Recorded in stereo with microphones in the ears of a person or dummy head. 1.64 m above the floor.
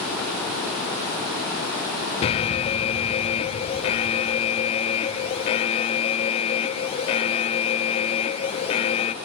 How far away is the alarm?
About 0.9 m.